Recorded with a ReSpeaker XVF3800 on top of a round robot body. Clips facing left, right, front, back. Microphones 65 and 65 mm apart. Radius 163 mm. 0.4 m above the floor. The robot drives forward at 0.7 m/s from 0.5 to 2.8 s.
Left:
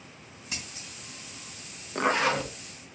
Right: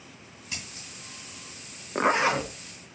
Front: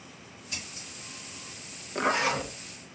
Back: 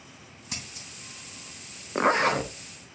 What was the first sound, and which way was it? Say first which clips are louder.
Scissors: even, back 1 dB; 165° left.